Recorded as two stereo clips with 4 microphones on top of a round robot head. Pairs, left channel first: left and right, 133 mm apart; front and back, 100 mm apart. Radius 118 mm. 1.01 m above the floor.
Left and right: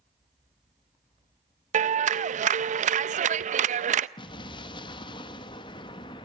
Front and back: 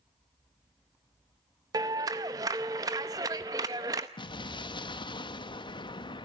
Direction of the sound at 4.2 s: 35° left.